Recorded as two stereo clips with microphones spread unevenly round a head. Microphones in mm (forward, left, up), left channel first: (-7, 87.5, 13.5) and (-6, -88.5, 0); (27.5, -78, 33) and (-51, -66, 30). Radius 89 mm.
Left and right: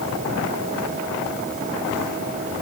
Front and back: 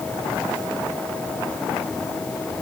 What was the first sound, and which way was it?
Only background noise.